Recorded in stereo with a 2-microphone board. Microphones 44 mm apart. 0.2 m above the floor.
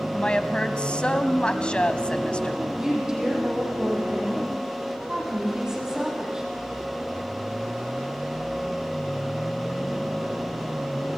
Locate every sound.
0.1 s a woman speaking: 25° left (ahead or behind), 1.3 m
2.8 s a woman speaking: 15° right (ahead or behind), 8 m